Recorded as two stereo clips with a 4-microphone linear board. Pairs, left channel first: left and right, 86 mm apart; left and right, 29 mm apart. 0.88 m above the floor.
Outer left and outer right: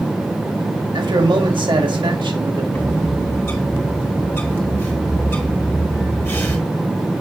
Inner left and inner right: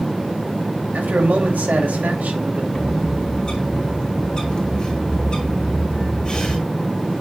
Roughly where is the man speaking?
Right.